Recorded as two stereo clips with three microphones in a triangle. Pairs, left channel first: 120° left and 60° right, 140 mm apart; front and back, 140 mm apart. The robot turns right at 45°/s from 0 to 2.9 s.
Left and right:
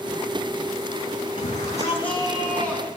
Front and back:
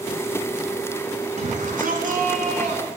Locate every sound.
1.4 s a shout: 165° left, 4.5 m; by 2.9 s 125° right, 4.5 m